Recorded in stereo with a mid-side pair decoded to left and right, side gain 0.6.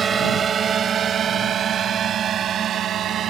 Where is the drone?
35° right; by 3.3 s 50° right.